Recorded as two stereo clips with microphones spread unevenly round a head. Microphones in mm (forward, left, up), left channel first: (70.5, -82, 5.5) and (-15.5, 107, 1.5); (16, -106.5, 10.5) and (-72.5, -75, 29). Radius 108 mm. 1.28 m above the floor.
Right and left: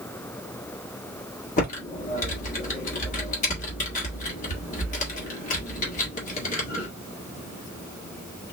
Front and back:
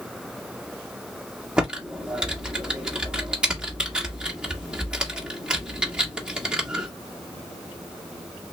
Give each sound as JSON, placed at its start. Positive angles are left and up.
{"t": 1.6, "sound": "typing on a keyboard", "azimuth_deg": -125, "distance_m": 1.5}